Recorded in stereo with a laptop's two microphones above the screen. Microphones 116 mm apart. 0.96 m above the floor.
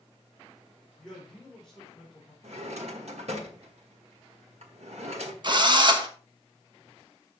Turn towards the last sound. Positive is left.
turn(degrees=-40)  # may be behind; listen again after turning